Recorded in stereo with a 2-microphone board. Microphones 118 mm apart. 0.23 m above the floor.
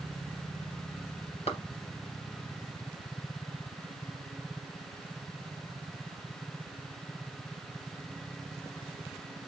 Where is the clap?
60° left (ahead or behind), 3 m.